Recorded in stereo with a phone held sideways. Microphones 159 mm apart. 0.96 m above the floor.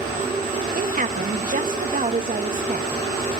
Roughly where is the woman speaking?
Right.